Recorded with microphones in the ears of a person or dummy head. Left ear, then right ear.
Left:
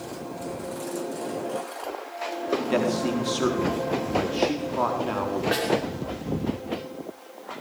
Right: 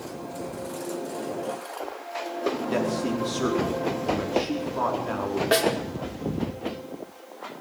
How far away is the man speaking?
About 4.5 m.